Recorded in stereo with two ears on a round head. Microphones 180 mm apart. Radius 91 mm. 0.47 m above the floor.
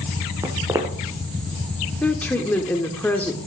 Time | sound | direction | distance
0.4 | footsteps | 15° right (ahead or behind) | 1.5 m
2.0 | a woman speaking | 10° left (ahead or behind) | 0.9 m